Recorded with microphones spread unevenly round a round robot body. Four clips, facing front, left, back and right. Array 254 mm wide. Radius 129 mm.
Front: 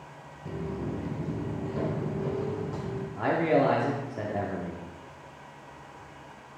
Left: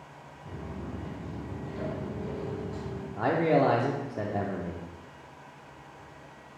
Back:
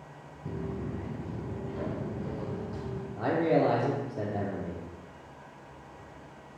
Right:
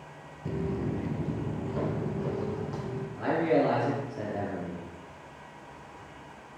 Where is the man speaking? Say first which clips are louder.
Left 1 dB, front 1 dB; 75° left, 0.8 m.